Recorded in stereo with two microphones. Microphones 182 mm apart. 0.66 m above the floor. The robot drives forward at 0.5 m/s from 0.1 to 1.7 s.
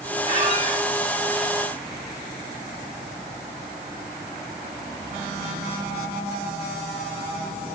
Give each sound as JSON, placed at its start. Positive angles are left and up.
{"t": 0.3, "sound": "a squeak", "side_deg": -35, "distance_m": 3.5}